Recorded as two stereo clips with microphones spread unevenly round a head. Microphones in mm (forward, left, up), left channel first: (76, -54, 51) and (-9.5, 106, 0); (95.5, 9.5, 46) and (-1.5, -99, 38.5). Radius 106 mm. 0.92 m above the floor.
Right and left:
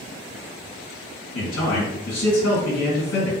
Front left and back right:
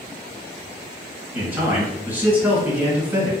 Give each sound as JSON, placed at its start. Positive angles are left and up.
{"t": 1.3, "sound": "a man speaking", "azimuth_deg": -55, "distance_m": 1.9}